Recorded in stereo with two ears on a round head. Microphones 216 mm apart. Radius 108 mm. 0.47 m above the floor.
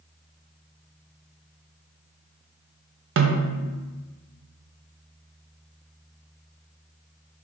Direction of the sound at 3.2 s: 55° right (ahead or behind).